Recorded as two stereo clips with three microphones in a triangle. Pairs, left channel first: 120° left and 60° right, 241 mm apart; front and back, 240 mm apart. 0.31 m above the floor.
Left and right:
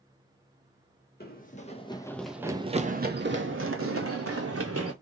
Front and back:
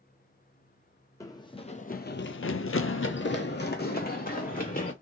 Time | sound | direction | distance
1.2 | running footsteps | 75° left | 0.8 m